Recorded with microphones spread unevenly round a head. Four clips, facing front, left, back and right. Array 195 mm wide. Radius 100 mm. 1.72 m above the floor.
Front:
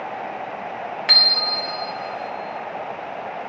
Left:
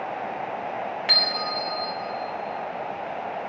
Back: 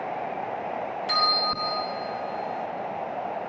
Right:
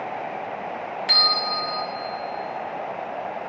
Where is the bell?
15° left, 1.7 m.